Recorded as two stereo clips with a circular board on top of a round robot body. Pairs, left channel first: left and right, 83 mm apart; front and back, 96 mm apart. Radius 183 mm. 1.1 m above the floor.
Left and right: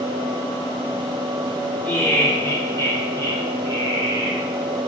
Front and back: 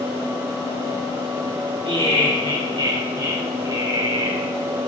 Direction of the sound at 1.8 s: 160° left.